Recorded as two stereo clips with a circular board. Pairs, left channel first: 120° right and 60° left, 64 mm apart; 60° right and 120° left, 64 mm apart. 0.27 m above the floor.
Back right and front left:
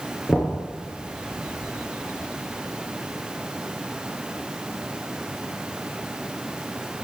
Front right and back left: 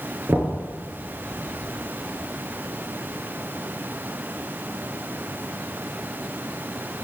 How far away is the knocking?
About 4 m.